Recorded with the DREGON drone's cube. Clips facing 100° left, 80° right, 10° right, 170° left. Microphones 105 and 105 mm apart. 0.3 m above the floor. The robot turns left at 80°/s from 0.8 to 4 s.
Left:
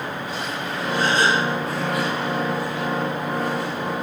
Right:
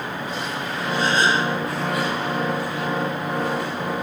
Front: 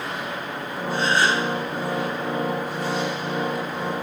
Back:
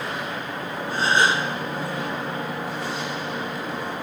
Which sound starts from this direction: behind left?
A gasp, at 0.9 s.